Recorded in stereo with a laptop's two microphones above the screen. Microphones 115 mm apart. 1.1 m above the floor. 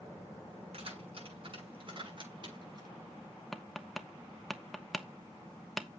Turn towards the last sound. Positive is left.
turn(degrees=0)  # may be behind; listen again after turning